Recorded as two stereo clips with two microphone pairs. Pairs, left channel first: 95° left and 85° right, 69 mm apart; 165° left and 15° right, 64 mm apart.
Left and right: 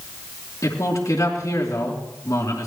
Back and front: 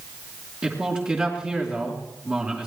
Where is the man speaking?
55° left, 3.5 m.